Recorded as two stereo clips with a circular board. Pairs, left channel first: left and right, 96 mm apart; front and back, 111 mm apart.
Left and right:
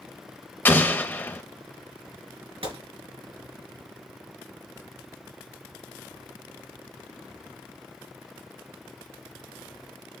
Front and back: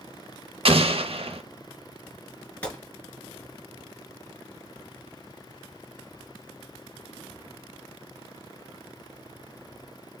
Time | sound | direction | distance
0.7 | an explosion | 155° left | 0.6 m
2.6 | a gunshot | 75° right | 1.8 m